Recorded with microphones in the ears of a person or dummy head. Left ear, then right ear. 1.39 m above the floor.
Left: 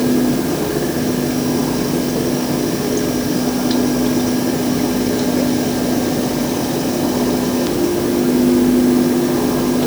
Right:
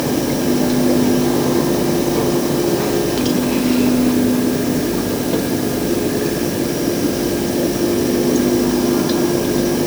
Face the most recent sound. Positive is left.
No sound to turn to.